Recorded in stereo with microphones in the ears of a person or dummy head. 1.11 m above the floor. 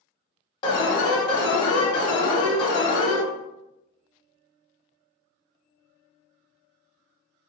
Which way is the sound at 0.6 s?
25° left (ahead or behind).